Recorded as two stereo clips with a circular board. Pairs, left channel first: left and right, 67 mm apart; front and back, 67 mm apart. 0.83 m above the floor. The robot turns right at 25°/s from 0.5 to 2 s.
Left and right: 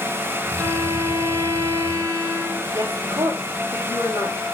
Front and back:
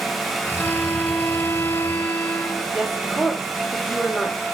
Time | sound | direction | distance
0.6 | a violin | 80° right | 1.6 m
2.7 | a woman speaking | 85° right | 5 m